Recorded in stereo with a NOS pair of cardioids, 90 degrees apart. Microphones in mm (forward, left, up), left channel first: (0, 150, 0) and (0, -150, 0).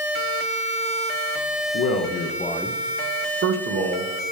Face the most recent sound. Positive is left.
turn(degrees=-60)